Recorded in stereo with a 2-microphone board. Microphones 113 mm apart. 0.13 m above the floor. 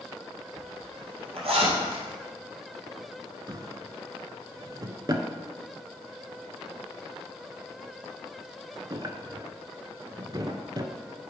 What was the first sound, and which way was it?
A zipper, 60° right (ahead or behind).